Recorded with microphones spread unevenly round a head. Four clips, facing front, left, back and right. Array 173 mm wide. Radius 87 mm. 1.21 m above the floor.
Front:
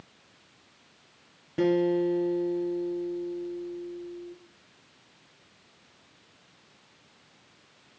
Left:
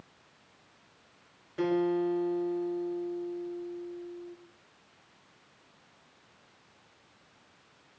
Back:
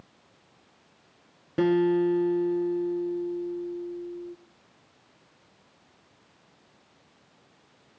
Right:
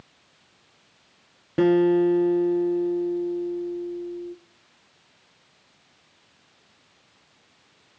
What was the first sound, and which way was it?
A guitar, 100° right.